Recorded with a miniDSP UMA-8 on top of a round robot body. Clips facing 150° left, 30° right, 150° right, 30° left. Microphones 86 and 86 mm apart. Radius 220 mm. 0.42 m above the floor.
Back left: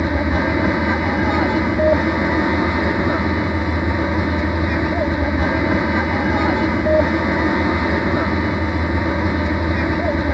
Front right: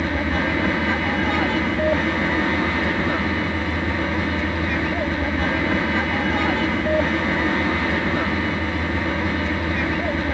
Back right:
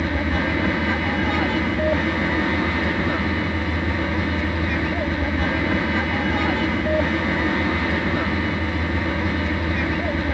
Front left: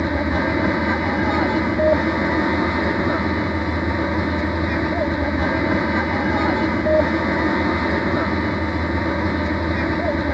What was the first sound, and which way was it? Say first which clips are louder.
An aircraft: back left 3 dB, front left 3 dB; 90° left.